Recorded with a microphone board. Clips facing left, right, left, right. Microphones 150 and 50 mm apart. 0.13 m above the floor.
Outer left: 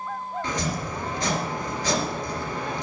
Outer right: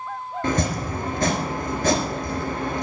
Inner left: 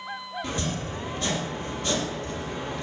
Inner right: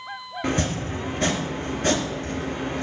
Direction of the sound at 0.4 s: 55° right (ahead or behind).